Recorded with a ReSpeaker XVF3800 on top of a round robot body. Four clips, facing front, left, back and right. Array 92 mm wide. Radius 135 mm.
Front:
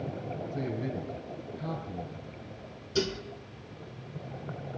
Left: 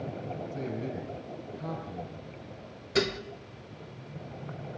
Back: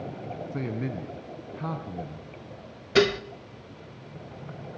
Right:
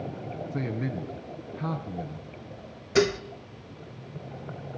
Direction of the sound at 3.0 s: 160° right.